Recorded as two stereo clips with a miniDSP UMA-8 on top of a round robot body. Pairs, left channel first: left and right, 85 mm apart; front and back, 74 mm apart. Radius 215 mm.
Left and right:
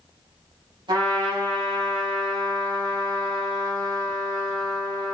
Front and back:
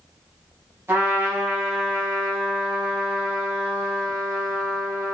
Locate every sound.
0.9 s a trumpet: 120° right, 4 m